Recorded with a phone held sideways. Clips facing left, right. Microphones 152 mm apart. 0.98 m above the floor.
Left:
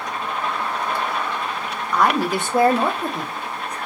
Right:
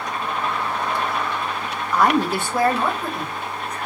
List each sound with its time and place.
1.9 s a woman speaking: 5° right (ahead or behind), 0.6 m; by 3.8 s 45° left (ahead or behind), 1.3 m